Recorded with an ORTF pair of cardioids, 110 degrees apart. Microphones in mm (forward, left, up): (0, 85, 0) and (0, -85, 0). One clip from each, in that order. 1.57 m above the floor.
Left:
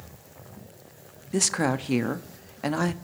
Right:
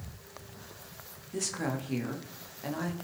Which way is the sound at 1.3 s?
55° left.